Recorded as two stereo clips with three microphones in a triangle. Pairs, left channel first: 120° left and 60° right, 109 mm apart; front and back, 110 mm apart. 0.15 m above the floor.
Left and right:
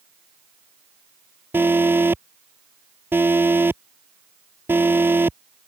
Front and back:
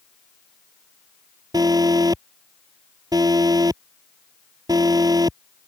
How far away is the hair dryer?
No hair dryer in this recording.